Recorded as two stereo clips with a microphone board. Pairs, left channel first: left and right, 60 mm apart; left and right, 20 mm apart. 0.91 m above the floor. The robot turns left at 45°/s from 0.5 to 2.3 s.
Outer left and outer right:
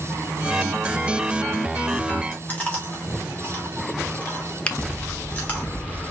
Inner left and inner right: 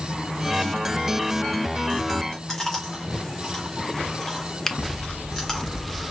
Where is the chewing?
30° left (ahead or behind), 2.5 m.